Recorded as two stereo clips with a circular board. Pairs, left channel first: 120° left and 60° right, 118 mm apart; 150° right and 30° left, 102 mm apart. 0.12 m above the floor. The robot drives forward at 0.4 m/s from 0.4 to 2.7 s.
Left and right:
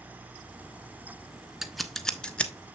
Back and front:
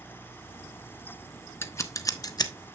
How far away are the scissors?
About 0.6 m.